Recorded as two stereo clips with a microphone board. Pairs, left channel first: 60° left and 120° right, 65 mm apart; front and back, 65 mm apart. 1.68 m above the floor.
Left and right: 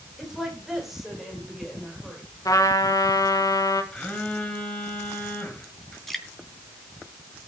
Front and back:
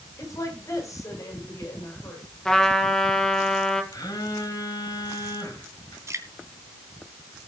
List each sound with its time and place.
0.2 s a woman speaking: 35° right, 8 m; by 2.2 s 30° right, 9 m
2.5 s a trumpet: 80° left, 2.5 m
3.9 s a phone buzzing: 15° right, 6 m
6.1 s dripping: 145° left, 3 m